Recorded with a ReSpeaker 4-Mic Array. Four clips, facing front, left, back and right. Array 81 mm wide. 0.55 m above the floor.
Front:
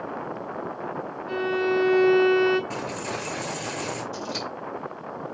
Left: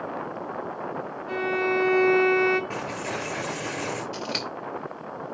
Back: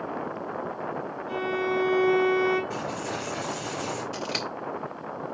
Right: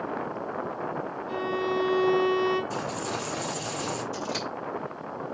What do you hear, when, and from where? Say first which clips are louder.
1.3 s a violin: left 3 dB, front 3 dB; 60° left, 3 m
2.7 s a dropped coin: even, even; 75° left, 4.5 m
4.1 s scissors: even, even; 145° left, 2.5 m